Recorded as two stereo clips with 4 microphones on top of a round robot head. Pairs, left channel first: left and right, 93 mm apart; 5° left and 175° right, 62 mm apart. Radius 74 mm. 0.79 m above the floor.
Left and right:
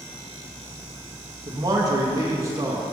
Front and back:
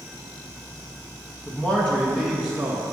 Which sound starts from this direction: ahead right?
A man speaking, at 1.5 s.